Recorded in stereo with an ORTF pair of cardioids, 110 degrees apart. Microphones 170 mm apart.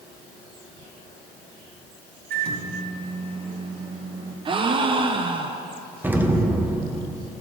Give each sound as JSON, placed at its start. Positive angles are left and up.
{"t": 2.3, "sound": "a microwave", "azimuth_deg": -60, "distance_m": 2.5}
{"t": 4.5, "sound": "a gasp", "azimuth_deg": -30, "distance_m": 0.7}
{"t": 6.0, "sound": "an explosion", "azimuth_deg": -10, "distance_m": 0.8}